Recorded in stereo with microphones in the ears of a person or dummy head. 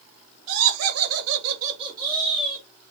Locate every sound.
0.5 s laughter: 70° right (ahead or behind), 1.1 m; by 2.7 s 5° left (ahead or behind), 1.1 m